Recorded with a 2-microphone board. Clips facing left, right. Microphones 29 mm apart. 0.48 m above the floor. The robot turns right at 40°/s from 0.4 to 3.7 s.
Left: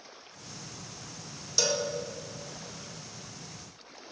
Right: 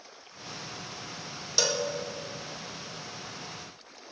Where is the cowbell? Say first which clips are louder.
Right 1 dB; 25° right (ahead or behind), 1.0 m; by 1.9 s 15° right (ahead or behind), 1.0 m.